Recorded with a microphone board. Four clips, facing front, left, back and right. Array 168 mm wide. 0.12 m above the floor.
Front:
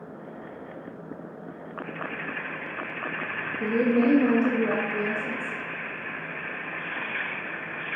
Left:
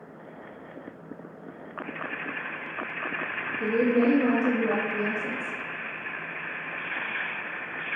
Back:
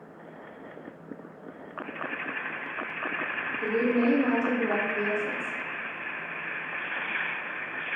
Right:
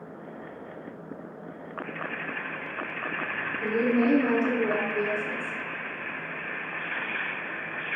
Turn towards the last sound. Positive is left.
turn(degrees=50)